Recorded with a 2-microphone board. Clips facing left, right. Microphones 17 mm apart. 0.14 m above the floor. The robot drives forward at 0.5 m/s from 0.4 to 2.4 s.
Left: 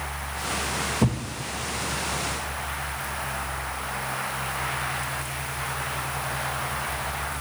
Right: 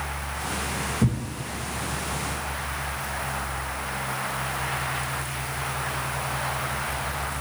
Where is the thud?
65° left (ahead or behind), 1.6 m.